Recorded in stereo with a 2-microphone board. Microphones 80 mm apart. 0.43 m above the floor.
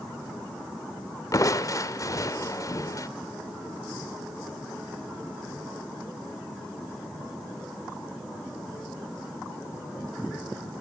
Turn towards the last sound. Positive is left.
turn(degrees=40)  # may be behind; listen again after turning